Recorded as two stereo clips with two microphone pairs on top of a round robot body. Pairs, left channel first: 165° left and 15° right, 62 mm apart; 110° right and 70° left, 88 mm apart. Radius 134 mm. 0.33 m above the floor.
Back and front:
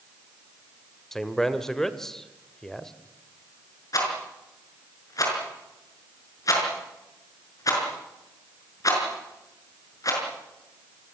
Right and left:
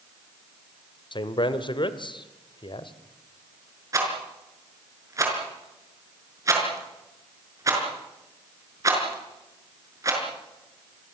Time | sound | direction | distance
1.1 | a man speaking | 105° right | 1.7 m
3.9 | a rattle | 130° left | 6 m